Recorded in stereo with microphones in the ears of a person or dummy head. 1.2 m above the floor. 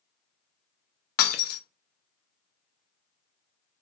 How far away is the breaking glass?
About 0.7 m.